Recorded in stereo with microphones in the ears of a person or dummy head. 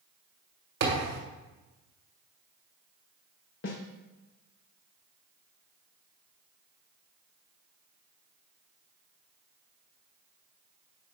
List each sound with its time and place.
0.8 s a thud: 55° right (ahead or behind), 1.6 m
3.6 s a snare drum: 60° left (ahead or behind), 0.8 m